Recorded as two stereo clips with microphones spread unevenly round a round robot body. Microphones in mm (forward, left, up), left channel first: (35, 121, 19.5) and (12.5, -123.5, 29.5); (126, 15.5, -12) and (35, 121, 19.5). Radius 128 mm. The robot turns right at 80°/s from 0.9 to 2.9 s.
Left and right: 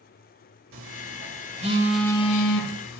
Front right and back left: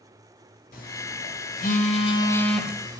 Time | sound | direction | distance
0.7 | a phone buzzing | 90° right | 1.9 m